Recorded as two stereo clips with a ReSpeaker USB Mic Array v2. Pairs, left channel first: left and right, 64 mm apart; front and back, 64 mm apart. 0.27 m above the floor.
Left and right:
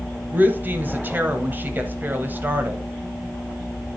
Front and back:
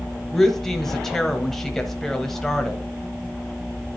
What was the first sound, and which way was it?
A woman speaking, 80° right.